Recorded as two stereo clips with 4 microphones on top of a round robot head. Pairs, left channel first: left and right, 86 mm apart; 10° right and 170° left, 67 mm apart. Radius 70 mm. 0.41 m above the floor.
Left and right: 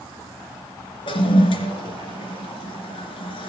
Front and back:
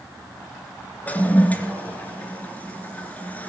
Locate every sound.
1.1 s a toilet flushing: 55° left, 2.5 m